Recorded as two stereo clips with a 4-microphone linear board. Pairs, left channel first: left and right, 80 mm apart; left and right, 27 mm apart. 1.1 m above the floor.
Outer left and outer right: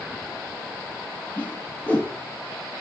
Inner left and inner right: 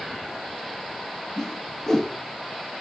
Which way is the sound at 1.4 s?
20° left (ahead or behind).